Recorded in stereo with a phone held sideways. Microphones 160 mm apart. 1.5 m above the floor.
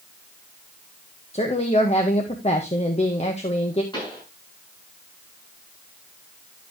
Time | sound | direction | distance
1.3 | a woman speaking | 40° left (ahead or behind) | 1.6 m
3.9 | a pop | 30° left (ahead or behind) | 6.5 m